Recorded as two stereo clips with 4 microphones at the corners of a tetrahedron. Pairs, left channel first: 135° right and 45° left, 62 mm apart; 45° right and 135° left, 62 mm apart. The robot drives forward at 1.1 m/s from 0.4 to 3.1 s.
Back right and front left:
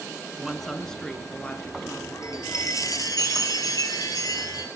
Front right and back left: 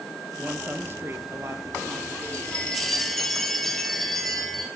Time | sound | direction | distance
0.4 | a woman speaking | 125° left | 1.6 m
2.2 | a chime | 110° right | 2 m